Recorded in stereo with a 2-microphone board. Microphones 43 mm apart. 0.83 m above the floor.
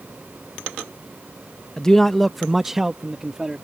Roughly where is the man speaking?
Centre.